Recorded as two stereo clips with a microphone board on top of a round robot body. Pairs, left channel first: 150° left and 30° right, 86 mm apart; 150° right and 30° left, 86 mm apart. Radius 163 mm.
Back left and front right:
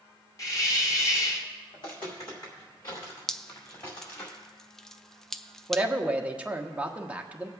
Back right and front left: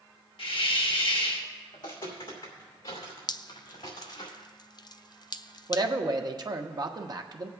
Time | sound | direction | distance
0.4 | a hiss | 160° right | 1.2 m
1.7 | footsteps | 175° left | 3 m
3.3 | dripping | 125° right | 0.5 m
5.7 | a man speaking | 40° left | 1.2 m